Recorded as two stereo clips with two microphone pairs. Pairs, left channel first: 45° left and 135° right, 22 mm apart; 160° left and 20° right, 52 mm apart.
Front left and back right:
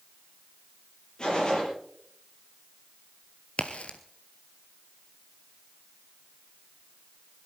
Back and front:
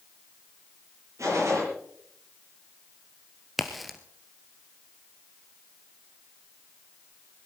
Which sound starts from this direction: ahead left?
A crack, at 3.6 s.